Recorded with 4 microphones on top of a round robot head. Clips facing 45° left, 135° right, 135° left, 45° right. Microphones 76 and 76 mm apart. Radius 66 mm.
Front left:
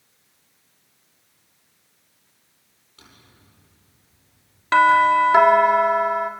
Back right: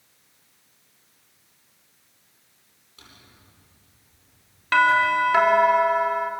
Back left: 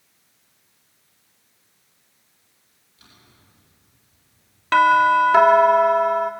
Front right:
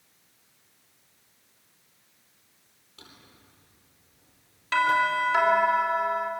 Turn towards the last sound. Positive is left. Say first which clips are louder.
# front left 4 dB, back left 9 dB
turn(degrees=110)